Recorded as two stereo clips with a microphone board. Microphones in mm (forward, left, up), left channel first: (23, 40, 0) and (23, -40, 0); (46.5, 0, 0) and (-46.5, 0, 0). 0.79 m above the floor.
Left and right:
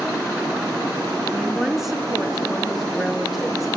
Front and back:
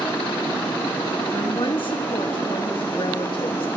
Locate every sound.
0.0 s running water: 65° right, 5.5 m
1.3 s a woman speaking: 5° right, 1.2 m